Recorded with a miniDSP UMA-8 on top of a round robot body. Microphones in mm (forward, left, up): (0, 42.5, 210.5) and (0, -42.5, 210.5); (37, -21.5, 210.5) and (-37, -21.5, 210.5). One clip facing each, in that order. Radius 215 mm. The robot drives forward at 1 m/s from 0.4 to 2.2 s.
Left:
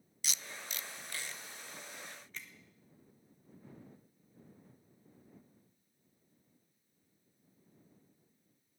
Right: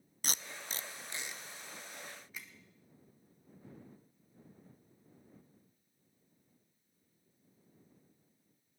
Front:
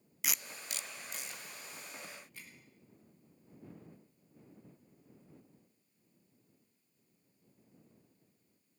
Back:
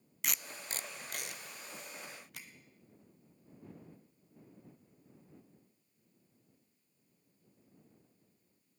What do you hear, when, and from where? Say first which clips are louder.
0.2 s tape being pulled: right 2 dB, even; 85° right, 0.6 m; by 2.5 s 170° right, 1.9 m